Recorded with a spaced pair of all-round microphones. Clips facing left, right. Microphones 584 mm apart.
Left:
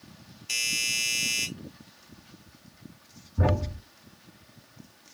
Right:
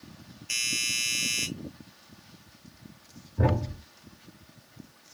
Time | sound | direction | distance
0.5 | a doorbell | 60° left (ahead or behind) | 1.0 m
3.4 | a thud | 40° left (ahead or behind) | 3 m